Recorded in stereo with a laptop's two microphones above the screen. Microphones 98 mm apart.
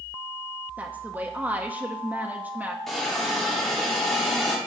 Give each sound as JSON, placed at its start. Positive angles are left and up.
{"t": 0.8, "sound": "a woman speaking", "side_deg": -15, "distance_m": 0.7}
{"t": 2.9, "sound": "a hiss", "side_deg": 5, "distance_m": 1.2}